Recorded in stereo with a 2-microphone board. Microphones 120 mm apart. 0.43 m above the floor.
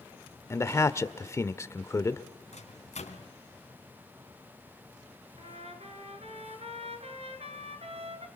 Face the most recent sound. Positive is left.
turn(degrees=-55)  # may be behind; listen again after turning